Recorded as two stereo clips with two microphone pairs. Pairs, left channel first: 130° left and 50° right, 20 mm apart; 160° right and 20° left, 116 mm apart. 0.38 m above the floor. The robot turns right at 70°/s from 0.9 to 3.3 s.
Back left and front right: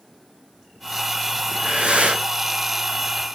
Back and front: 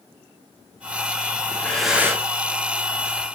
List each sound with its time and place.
1.5 s breathing: 95° right, 3.5 m; by 2.2 s 40° right, 3.5 m